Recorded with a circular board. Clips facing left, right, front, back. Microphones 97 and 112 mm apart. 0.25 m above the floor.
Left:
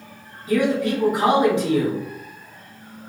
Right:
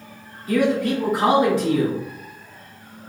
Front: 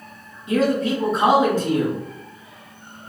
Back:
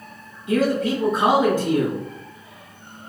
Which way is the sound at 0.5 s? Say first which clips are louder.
Even, front 1 dB; 35° left.